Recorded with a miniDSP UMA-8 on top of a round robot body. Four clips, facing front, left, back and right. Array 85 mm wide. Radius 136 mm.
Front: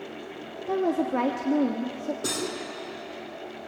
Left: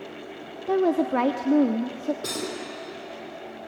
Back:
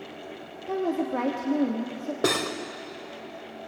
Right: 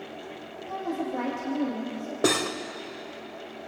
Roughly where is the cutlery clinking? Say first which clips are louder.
Right 6 dB, back 5 dB; behind right.